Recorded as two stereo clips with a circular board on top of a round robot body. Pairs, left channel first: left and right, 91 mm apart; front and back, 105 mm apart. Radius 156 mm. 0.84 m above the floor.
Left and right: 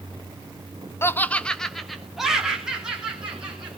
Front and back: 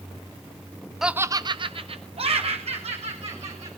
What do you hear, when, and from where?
1.0 s laughter: 95° left, 0.8 m; by 3.7 s 170° right, 3.5 m